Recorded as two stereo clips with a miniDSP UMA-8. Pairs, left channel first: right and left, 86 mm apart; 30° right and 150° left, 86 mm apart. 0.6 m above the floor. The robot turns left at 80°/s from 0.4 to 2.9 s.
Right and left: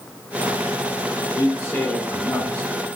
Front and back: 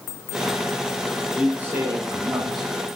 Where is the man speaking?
125° right, 1.6 m; by 2.7 s 130° left, 1.6 m.